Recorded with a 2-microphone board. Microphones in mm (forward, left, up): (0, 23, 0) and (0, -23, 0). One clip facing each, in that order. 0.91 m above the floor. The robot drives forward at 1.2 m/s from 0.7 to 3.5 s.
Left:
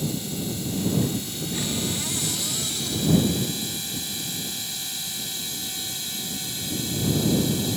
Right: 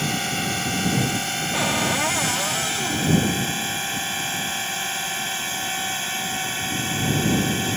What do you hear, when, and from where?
0.0 s a drone: 65° right (ahead or behind); by 7.8 s 55° right (ahead or behind)
1.5 s a cupboard door: 65° right (ahead or behind); by 3.2 s 45° right (ahead or behind)